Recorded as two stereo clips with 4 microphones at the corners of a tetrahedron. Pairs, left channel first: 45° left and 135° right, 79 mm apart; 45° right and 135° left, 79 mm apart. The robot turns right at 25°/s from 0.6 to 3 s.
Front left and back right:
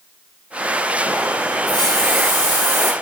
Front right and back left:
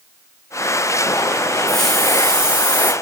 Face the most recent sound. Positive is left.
turn(degrees=75)